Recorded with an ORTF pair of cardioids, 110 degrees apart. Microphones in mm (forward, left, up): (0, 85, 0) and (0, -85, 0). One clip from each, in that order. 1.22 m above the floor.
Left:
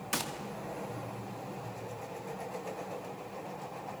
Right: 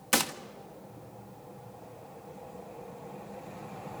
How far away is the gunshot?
About 1.4 m.